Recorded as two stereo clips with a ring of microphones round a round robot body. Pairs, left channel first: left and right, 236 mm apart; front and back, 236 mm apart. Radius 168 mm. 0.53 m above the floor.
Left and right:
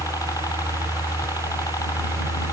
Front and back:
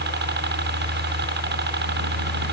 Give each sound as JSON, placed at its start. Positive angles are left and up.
{"t": 0.0, "sound": "a helicopter", "azimuth_deg": 165}